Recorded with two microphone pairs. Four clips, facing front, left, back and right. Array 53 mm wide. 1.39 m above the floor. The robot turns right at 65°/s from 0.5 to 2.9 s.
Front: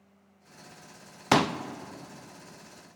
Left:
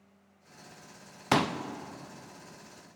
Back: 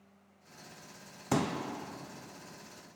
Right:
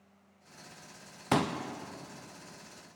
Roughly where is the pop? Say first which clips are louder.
Left 2 dB, front 8 dB; ahead.